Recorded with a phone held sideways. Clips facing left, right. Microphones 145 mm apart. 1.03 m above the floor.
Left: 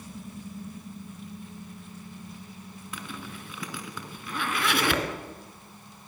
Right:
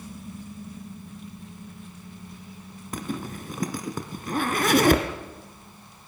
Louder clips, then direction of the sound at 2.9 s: Right 9 dB; 45° right (ahead or behind).